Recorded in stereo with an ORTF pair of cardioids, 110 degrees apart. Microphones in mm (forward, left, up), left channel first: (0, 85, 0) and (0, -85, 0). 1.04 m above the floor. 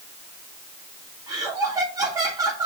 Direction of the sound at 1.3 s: 20° right.